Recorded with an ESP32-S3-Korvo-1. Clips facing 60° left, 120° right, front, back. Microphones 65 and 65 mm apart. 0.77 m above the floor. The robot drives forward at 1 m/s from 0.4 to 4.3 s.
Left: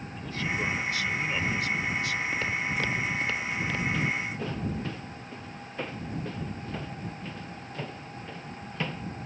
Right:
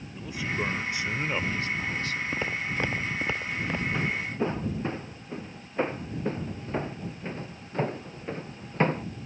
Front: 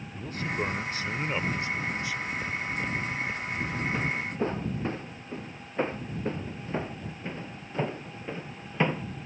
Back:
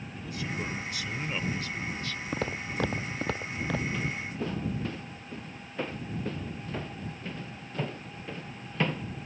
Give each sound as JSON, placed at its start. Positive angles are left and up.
{"t": 0.1, "sound": "a man speaking", "azimuth_deg": -45}
{"t": 2.3, "sound": "footsteps", "azimuth_deg": 165}
{"t": 3.9, "sound": "footsteps", "azimuth_deg": -55}